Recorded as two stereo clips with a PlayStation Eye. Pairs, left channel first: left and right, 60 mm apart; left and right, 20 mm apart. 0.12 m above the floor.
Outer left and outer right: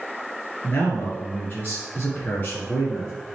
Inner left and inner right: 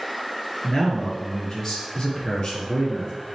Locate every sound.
0.6 s a man speaking: 35° left (ahead or behind), 1.7 m